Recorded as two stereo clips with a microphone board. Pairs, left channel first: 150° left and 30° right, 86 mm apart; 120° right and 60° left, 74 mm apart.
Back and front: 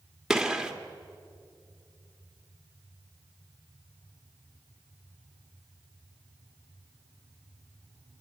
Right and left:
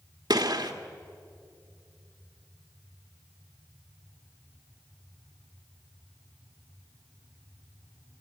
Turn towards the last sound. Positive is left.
turn(degrees=55)